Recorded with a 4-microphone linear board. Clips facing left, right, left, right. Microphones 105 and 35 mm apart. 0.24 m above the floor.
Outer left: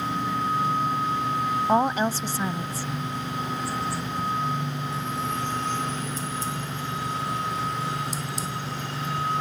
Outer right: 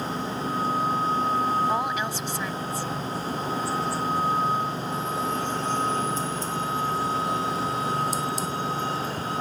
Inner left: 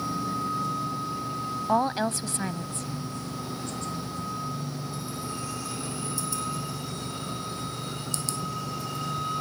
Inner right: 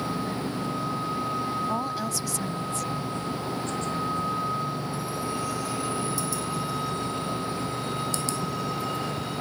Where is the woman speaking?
35° left (ahead or behind).